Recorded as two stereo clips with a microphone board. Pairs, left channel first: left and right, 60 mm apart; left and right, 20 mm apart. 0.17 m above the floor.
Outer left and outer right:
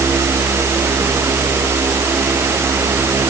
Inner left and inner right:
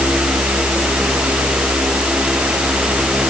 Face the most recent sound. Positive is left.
No sound to turn to.